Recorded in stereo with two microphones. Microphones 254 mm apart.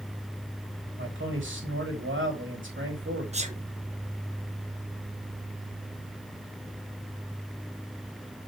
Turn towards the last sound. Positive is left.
turn(degrees=-25)  # may be behind; listen again after turning